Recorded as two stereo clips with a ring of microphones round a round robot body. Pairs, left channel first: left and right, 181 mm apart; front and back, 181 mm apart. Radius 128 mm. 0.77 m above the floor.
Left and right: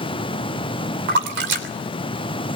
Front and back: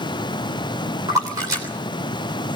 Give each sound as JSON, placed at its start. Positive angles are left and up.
{"t": 1.1, "sound": "a splash", "azimuth_deg": -105, "distance_m": 3.0}